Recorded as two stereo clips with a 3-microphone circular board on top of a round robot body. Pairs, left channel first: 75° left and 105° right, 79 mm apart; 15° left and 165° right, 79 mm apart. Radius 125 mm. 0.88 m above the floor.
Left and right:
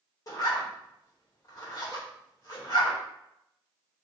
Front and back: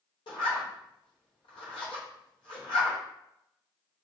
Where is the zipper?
30° left, 1.0 m.